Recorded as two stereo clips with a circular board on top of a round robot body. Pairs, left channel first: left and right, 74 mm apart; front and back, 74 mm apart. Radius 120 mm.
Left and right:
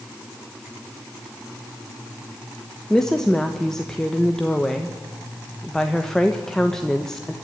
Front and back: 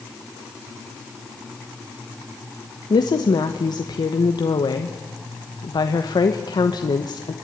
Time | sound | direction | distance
2.9 | a woman speaking | 10° left | 1.3 m